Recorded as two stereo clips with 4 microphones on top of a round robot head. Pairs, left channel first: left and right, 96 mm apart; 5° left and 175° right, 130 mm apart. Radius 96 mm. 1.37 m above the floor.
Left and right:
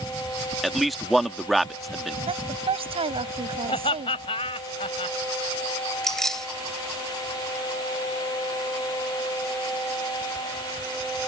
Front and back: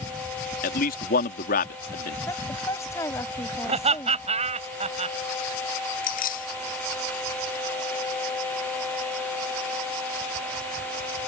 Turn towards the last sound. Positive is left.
turn(degrees=5)